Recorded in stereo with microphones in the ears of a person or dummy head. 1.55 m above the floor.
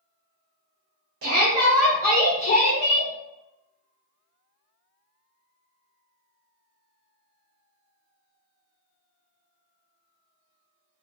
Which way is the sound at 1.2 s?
50° right (ahead or behind).